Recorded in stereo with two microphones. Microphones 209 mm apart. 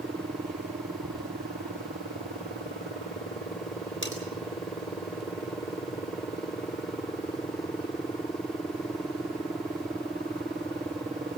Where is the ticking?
85° right, 7 m.